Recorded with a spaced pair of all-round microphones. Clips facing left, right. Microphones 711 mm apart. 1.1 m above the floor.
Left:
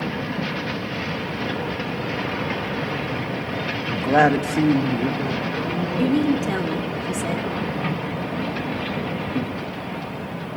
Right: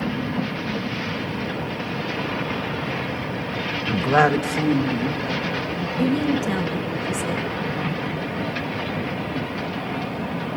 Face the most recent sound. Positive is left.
turn(degrees=-30)  # may be behind; listen again after turning